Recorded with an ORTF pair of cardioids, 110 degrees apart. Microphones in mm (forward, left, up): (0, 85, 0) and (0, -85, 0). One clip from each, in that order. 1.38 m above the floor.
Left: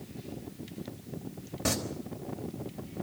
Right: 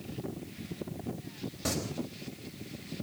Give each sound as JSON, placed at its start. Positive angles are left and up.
{"t": 1.6, "sound": "singing", "azimuth_deg": 25, "distance_m": 4.0}